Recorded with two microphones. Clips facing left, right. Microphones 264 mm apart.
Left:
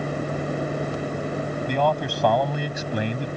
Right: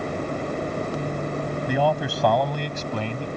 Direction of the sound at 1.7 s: 10° right (ahead or behind).